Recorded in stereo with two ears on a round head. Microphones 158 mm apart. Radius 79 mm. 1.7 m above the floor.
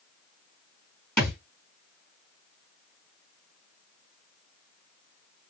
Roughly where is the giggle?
I don't hear a giggle.